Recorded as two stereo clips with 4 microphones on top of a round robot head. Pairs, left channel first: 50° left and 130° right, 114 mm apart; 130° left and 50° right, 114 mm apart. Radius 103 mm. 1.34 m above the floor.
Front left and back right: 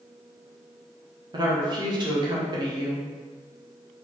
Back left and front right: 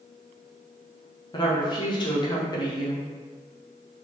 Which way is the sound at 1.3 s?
Straight behind.